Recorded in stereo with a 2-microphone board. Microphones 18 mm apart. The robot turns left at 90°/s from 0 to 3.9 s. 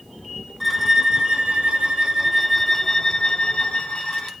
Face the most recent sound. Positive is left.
turn(degrees=70)